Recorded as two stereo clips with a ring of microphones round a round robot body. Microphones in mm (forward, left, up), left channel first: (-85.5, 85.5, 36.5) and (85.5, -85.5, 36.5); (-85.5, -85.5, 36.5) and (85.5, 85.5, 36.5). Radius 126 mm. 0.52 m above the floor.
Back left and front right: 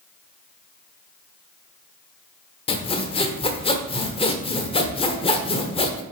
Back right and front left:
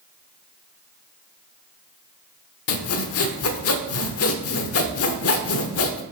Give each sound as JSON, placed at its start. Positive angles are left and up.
{"t": 2.7, "sound": "sawing", "azimuth_deg": -160, "distance_m": 0.9}